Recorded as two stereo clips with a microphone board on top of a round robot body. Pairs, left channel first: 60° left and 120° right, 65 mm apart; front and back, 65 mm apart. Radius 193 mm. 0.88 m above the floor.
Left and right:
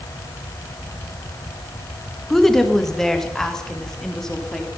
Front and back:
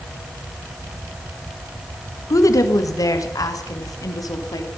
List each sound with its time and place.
2.3 s a woman speaking: 25° right, 1.8 m; by 4.7 s 20° right, 3 m